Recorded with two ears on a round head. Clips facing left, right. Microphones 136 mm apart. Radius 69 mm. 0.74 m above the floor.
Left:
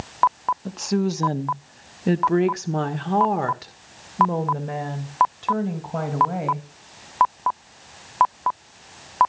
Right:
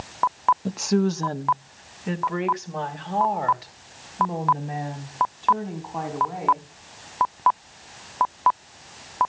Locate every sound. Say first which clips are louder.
0.7 s a woman speaking: right 1 dB; 10° right (ahead or behind), 0.7 m; by 6.7 s 75° left (ahead or behind), 4 m